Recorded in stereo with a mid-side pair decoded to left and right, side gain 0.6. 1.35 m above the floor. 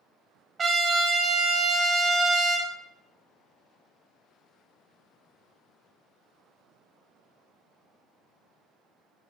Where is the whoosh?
I don't hear a whoosh.